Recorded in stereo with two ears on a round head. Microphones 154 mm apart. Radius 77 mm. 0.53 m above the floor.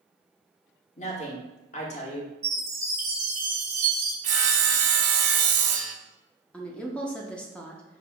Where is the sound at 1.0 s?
45° left (ahead or behind), 1.0 m.